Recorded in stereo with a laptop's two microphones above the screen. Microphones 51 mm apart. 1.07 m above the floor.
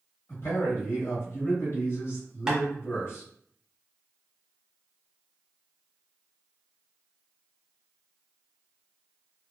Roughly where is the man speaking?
Left.